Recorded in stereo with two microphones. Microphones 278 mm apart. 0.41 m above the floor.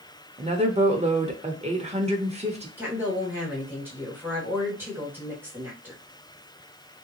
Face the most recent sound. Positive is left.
turn(degrees=-5)  # may be behind; listen again after turning